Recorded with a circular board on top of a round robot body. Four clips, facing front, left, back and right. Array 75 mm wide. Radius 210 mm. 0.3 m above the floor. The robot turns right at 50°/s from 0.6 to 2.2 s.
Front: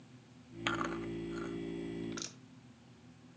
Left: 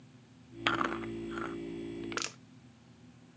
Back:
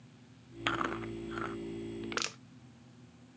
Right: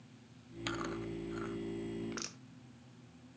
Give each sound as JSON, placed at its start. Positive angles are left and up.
{"t": 0.7, "sound": "chewing", "azimuth_deg": 105, "distance_m": 1.0}
{"t": 2.0, "sound": "crushing", "azimuth_deg": 135, "distance_m": 0.8}